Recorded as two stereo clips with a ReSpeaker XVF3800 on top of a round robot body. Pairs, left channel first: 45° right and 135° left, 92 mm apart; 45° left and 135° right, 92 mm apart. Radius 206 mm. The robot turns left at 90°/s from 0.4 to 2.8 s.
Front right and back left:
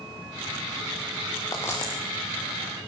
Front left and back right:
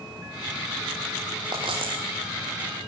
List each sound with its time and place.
1.5 s a dropped coin: 95° right, 5.5 m; by 2.0 s 140° right, 5.5 m